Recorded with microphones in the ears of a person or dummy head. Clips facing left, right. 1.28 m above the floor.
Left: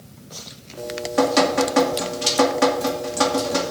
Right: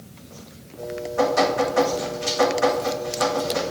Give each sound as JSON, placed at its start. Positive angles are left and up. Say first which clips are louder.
{"t": 0.8, "sound": "dripping", "louder": "left 2 dB", "side_deg": 85, "distance_m": 2.5}